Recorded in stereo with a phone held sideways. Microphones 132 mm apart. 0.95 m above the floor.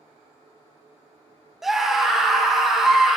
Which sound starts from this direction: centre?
A scream, at 1.6 s.